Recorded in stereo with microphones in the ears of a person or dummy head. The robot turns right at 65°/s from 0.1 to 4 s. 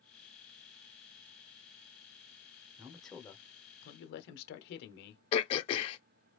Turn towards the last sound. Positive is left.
turn(degrees=35)  # may be behind; listen again after turning